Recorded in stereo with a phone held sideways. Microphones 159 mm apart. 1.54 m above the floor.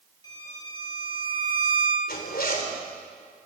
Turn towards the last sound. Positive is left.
turn(degrees=75)  # may be behind; listen again after turning